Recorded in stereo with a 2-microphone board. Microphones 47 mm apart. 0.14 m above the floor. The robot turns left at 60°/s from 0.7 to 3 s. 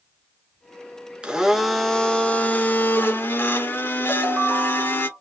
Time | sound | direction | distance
1.2 | a blender | 150° right | 0.6 m
4.1 | a ringtone | 30° right (ahead or behind) | 1.6 m